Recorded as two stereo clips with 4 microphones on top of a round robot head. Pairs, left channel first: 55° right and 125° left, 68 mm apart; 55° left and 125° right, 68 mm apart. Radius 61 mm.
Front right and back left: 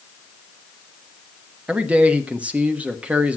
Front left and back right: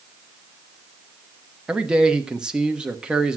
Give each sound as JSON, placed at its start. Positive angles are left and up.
{"t": 1.7, "sound": "a man speaking", "azimuth_deg": 175, "distance_m": 1.3}